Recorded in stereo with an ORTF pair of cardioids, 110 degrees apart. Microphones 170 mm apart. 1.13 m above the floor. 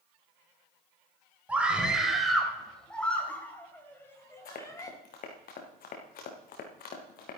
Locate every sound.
1.5 s a scream: 5° right, 4 m; by 4.9 s 20° left, 5 m
4.5 s running footsteps: 60° left, 4 m